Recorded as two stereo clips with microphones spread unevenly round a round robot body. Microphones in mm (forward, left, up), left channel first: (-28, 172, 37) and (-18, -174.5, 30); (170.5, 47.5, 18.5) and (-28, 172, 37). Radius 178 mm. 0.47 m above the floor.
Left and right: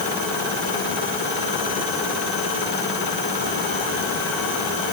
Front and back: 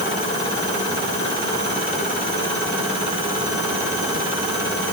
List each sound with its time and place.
Only background noise.